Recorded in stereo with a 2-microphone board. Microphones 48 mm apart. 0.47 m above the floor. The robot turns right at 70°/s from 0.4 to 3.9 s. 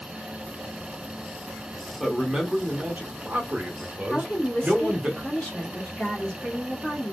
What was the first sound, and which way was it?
A man speaking, straight behind.